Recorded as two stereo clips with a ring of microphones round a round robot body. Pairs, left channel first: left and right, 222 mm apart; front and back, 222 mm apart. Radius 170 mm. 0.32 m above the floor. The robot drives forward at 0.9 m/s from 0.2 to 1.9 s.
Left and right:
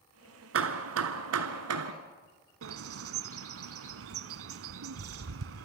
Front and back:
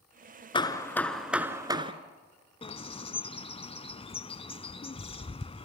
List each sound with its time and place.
0.5 s hammering: 70° right, 1.7 m; by 1.9 s 110° right, 1.7 m
2.6 s a bird: 70° right, 0.9 m